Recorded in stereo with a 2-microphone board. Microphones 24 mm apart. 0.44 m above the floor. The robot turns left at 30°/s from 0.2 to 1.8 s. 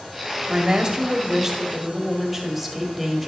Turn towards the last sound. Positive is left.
turn(degrees=-175)